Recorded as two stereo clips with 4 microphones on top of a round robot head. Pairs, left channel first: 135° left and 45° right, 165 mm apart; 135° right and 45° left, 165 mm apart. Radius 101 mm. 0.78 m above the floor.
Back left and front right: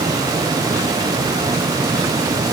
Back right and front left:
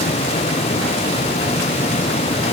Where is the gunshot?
I don't hear a gunshot.